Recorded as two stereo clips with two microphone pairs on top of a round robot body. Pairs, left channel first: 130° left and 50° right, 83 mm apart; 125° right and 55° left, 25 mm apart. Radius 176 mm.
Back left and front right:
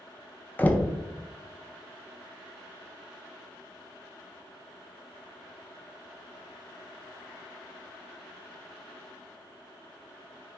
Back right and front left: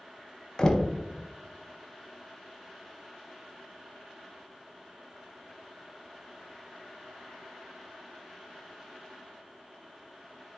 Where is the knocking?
165° right, 0.6 m.